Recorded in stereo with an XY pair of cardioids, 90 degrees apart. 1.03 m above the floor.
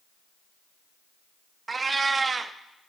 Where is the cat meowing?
40° right, 0.7 m.